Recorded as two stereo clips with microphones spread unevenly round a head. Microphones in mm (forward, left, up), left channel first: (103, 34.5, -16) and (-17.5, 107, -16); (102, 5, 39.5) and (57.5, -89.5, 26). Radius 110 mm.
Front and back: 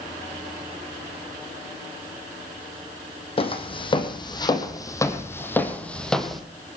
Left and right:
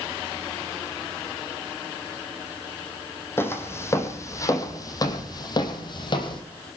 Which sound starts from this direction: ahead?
Footsteps, at 3.4 s.